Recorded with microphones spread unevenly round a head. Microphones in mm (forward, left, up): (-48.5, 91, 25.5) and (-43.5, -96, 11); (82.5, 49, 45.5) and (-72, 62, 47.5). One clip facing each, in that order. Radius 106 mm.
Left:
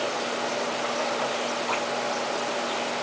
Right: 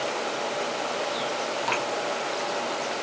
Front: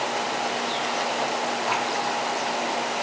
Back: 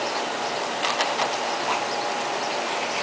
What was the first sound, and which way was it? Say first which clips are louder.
Dripping: even, even; 90° right.